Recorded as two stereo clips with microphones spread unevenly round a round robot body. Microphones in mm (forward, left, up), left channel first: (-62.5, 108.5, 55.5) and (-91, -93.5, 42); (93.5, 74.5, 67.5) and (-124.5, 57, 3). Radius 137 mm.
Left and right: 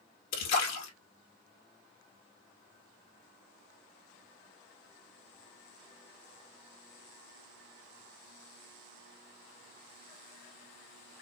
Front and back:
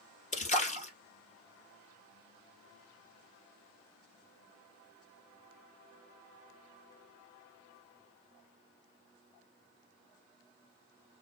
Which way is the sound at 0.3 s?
60° left.